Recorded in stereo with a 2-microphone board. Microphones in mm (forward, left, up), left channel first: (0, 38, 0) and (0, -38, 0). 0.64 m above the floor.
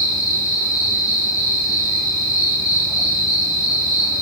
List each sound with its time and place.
0.0 s an insect: 45° left (ahead or behind), 4 m